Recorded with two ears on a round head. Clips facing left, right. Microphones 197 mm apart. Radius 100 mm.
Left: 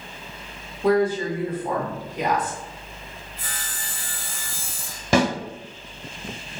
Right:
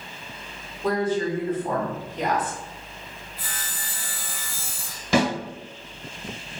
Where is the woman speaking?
10° left (ahead or behind), 0.9 m.